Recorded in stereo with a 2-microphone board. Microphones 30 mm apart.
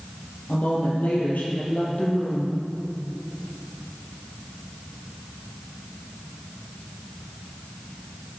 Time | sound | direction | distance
0.5 | a woman speaking | 75° left (ahead or behind) | 5.5 m